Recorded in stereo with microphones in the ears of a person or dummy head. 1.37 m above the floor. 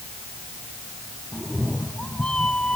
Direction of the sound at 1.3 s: 5° left (ahead or behind).